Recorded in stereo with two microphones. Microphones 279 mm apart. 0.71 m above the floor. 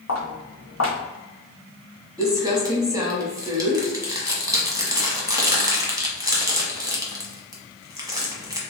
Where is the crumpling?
15° right (ahead or behind), 1.2 m.